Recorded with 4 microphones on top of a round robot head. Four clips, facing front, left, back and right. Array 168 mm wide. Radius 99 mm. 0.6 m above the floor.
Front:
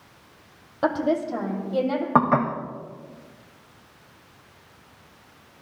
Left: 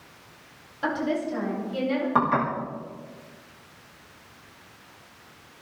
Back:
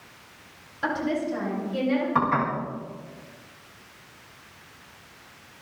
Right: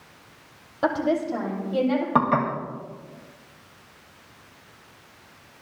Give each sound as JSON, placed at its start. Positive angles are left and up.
{"t": 0.8, "sound": "a woman speaking", "azimuth_deg": -40, "distance_m": 2.5}
{"t": 2.1, "sound": "dishes clattering", "azimuth_deg": -20, "distance_m": 2.0}